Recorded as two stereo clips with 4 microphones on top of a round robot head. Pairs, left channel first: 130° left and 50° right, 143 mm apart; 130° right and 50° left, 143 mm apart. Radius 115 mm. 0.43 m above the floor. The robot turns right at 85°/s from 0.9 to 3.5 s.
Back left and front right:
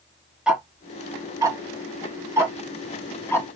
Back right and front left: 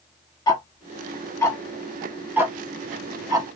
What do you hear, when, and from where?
0.5 s ticking: 130° right, 1.2 m; by 3.6 s 90° left, 1.2 m